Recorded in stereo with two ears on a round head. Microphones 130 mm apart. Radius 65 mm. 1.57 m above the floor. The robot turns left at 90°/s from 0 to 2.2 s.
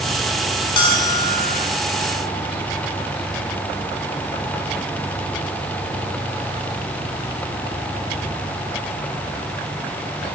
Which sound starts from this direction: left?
A bell, at 0.8 s.